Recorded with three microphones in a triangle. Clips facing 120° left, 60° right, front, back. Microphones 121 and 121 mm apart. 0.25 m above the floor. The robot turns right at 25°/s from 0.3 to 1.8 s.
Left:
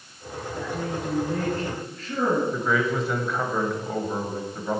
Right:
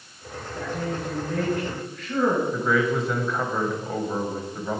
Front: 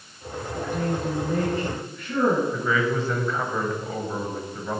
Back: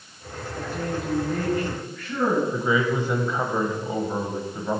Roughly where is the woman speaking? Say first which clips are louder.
Right 1 dB, front 2 dB; ahead left.